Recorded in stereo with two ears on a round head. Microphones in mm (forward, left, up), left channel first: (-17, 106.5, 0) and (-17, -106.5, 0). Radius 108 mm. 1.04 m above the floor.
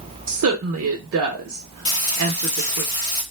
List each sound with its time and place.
0.3 s a woman speaking: 65° right (ahead or behind), 0.6 m
1.9 s frying: 20° left (ahead or behind), 1.4 m